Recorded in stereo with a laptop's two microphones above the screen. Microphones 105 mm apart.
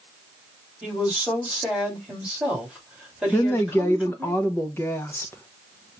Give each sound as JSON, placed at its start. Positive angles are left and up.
{"t": 0.8, "sound": "a woman speaking", "side_deg": -10, "distance_m": 2.5}
{"t": 3.3, "sound": "a woman speaking", "side_deg": 20, "distance_m": 0.7}